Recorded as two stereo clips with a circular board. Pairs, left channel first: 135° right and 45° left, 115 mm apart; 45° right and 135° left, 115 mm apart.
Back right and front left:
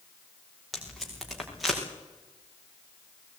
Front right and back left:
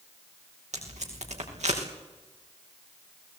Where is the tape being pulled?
135° left, 5.5 m.